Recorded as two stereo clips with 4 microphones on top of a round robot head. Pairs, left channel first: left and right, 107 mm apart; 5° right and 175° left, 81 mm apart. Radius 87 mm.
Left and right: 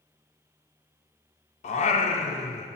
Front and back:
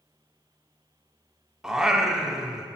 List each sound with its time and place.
1.6 s singing: 90° left, 1.0 m